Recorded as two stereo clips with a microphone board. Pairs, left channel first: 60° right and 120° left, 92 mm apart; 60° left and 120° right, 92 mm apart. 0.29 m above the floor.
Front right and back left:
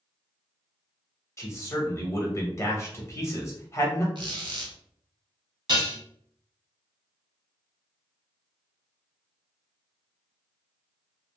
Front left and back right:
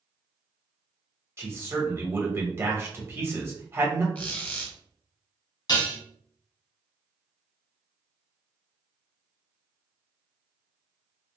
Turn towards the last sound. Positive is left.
turn(degrees=90)